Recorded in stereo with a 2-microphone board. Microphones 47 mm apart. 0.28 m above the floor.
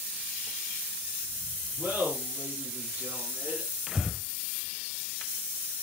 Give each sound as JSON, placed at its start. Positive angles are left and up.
{"t": 1.8, "sound": "laughter", "side_deg": -40, "distance_m": 3.5}
{"t": 3.9, "sound": "breathing", "side_deg": -15, "distance_m": 0.7}